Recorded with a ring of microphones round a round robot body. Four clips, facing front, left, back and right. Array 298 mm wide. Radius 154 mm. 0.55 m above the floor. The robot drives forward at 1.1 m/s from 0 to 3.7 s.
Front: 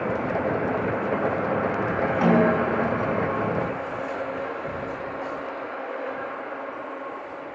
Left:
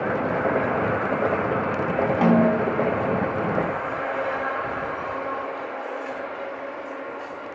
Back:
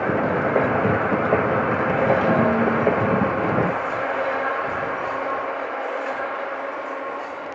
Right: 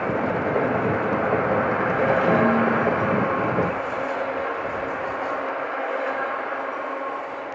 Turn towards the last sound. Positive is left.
turn(degrees=95)